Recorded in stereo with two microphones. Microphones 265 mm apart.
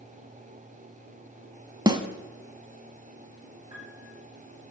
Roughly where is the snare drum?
Centre.